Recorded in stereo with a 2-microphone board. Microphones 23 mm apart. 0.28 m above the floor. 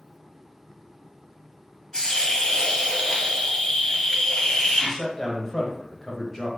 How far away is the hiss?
About 0.7 m.